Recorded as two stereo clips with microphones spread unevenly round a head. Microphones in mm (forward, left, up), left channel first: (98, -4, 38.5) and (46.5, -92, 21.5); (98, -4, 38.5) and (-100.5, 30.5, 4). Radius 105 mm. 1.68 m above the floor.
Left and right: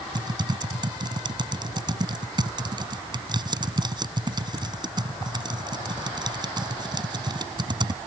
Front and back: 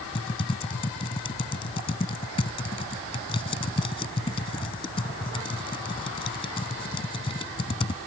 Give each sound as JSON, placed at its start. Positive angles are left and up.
{"t": 0.1, "sound": "typing on a keyboard", "azimuth_deg": -70}